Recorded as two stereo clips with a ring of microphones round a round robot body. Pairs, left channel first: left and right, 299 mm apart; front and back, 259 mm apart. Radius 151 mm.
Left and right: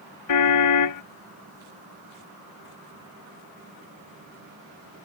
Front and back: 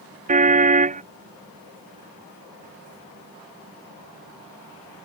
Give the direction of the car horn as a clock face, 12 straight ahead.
8 o'clock.